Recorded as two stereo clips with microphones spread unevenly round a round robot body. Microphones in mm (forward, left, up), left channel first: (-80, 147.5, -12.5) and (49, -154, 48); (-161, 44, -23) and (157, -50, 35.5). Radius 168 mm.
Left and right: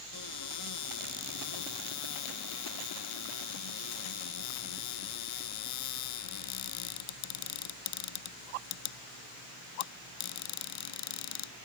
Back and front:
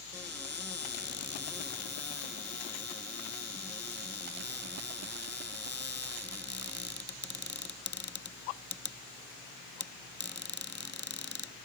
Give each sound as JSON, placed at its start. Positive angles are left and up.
{"t": 0.1, "sound": "a cupboard door", "azimuth_deg": 80}